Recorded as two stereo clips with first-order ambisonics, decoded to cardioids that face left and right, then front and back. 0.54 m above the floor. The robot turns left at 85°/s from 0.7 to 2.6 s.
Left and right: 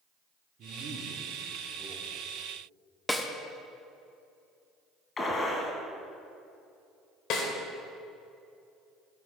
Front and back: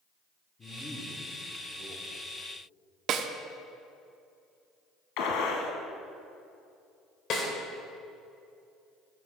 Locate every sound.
0.6 s a man speaking: 60° right, 1.1 m; by 2.1 s straight behind, 1.1 m
3.1 s a snare drum: 170° left, 0.5 m
5.2 s a gunshot: 20° left, 1.3 m
7.3 s a snare drum: 50° left, 1.4 m